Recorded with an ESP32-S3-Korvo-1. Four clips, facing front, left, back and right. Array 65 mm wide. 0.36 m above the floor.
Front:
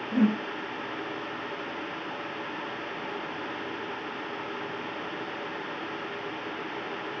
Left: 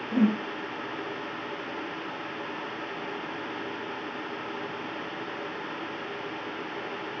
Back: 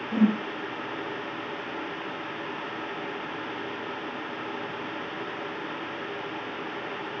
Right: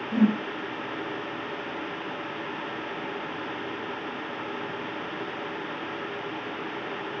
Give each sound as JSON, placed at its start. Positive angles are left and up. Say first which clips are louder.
{"t": 0.1, "sound": "a whoosh", "louder": "right 1 dB, back 1 dB", "azimuth_deg": 95, "distance_m": 0.8}